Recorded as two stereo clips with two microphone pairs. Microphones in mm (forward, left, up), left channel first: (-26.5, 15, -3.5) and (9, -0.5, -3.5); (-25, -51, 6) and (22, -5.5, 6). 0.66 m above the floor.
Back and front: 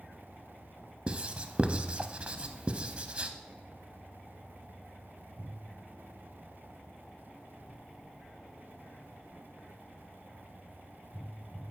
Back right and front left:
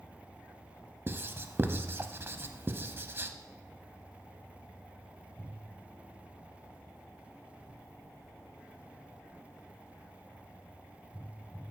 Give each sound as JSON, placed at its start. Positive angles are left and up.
{"t": 1.1, "sound": "writing", "azimuth_deg": 15, "distance_m": 0.6}